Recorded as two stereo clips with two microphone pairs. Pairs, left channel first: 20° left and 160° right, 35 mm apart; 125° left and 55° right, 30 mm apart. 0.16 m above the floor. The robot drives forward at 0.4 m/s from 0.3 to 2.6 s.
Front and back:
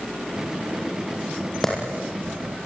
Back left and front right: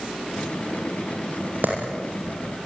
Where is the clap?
55° right, 7 m.